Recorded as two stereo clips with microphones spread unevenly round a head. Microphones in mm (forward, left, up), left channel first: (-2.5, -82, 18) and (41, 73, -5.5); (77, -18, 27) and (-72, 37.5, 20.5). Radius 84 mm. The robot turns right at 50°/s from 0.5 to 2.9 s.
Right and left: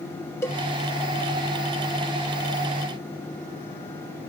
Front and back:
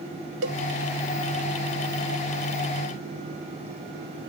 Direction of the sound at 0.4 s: Straight behind.